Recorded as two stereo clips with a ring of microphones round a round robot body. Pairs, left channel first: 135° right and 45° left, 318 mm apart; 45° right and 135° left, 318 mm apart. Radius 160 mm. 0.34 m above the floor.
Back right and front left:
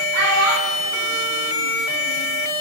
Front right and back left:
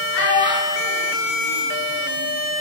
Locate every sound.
0.1 s a child speaking: 5° left, 0.9 m; by 2.3 s 100° left, 1.5 m